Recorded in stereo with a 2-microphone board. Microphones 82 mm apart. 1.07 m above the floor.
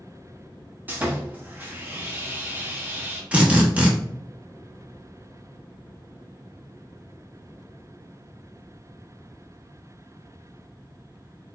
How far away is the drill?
About 0.7 m.